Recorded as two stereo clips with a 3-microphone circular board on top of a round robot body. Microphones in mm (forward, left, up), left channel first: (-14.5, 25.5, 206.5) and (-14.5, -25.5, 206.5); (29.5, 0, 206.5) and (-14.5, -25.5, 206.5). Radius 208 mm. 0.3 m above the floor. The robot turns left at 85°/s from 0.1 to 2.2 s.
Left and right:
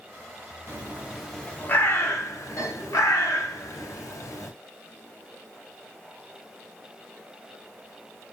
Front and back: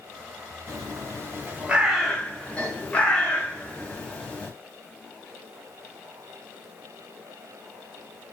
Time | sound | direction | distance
0.7 | a bird | 130° right | 2 m